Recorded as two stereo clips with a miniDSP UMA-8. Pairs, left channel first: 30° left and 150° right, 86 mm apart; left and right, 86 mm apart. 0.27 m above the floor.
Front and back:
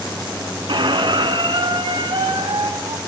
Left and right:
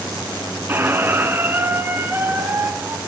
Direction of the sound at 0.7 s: 155° right.